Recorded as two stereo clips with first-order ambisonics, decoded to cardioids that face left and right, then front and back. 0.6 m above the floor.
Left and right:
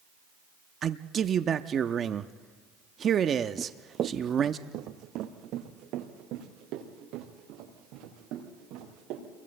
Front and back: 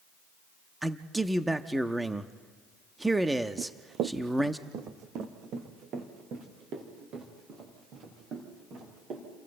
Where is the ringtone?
No ringtone in this recording.